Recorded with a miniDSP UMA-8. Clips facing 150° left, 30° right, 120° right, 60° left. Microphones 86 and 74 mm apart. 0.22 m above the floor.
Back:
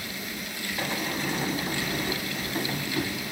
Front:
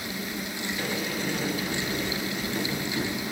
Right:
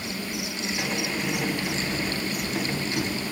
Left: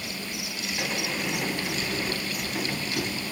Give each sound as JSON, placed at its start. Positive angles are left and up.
{"t": 0.8, "sound": "a sliding door", "azimuth_deg": 155, "distance_m": 1.9}